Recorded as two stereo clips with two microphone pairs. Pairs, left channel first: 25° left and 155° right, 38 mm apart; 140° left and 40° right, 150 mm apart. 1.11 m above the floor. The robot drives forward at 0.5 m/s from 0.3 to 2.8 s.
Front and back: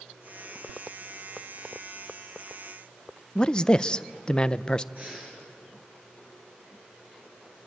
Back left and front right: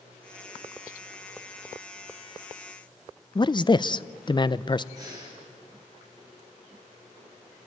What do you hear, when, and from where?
3.4 s a man speaking: 90° left, 0.5 m
5.0 s breathing: 105° right, 7.5 m